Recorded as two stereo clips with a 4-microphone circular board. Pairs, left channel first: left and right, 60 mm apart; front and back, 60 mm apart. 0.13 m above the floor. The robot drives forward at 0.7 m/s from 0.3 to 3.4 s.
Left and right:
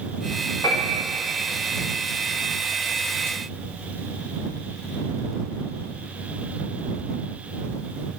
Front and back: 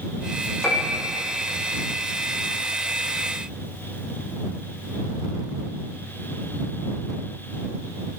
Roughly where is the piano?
Left.